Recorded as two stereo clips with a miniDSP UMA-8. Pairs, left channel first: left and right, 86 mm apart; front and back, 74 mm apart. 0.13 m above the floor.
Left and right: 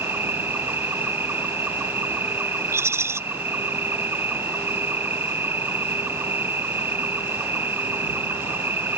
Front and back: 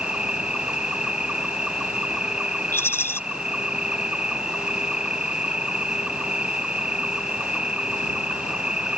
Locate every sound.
0.0 s an insect: 115° right
2.7 s a rattle: 45° right